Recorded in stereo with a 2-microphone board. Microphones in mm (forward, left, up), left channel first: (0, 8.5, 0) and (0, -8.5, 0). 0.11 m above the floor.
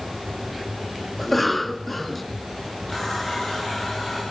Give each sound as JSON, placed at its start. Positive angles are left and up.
{"t": 1.2, "sound": "a cough", "side_deg": 5, "distance_m": 1.1}
{"t": 2.9, "sound": "a running tap", "side_deg": 20, "distance_m": 10.0}